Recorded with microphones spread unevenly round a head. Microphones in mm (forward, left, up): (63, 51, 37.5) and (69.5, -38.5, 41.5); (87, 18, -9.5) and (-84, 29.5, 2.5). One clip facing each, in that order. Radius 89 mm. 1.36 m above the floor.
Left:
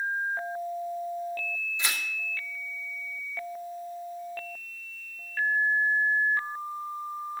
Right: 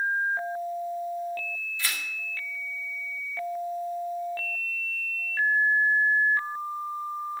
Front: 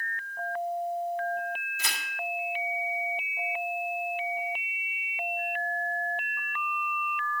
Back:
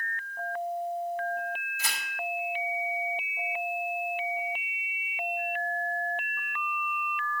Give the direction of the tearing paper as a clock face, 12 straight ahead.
11 o'clock.